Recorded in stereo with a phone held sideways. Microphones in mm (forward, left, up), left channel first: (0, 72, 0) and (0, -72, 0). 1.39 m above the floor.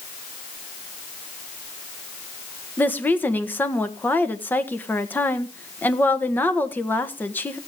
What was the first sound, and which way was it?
A woman speaking, 10° left (ahead or behind).